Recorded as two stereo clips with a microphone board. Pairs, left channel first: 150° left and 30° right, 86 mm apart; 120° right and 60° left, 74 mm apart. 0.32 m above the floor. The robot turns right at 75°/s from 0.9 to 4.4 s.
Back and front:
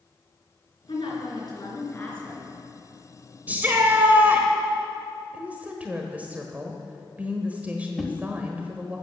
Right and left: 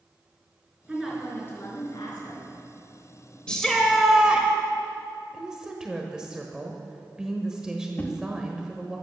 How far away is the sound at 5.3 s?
About 1.2 m.